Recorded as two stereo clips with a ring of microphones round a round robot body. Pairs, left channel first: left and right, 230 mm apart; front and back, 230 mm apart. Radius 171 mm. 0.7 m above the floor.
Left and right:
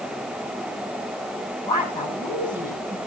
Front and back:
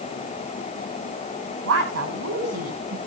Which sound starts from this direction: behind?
A woman speaking, at 1.6 s.